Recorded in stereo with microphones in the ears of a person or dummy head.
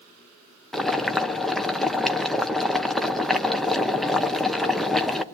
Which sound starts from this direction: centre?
Boiling, at 0.7 s.